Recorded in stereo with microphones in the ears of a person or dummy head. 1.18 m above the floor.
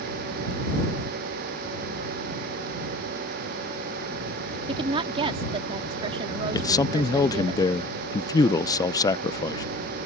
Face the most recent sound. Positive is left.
turn(degrees=20)  # may be behind; listen again after turning